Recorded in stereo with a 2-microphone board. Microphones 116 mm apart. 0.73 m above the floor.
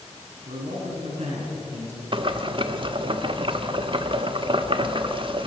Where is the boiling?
45° right (ahead or behind), 1.1 m.